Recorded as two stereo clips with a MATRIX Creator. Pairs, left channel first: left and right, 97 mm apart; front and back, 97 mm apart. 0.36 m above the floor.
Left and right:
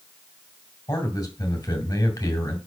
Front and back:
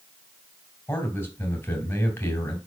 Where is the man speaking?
45° left, 2 m.